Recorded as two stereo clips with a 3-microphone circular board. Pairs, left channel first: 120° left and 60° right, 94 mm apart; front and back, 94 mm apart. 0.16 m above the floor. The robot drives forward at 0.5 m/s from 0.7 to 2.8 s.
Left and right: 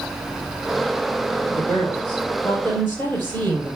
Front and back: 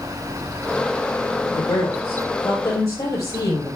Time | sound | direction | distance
1.5 | a woman speaking | 45° left | 4.5 m